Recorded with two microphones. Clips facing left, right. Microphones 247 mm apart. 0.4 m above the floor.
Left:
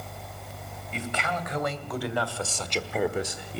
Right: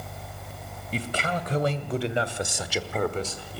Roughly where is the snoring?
No snoring in this recording.